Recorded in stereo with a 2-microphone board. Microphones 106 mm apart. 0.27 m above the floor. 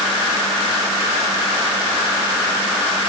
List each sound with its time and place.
Only background noise.